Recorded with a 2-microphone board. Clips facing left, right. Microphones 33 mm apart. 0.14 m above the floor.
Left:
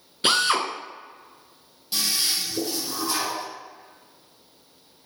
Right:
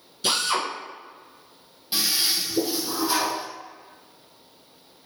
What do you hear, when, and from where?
0.2 s a drill: 40° left (ahead or behind), 1.4 m
1.9 s a toilet flushing: 20° right (ahead or behind), 1.5 m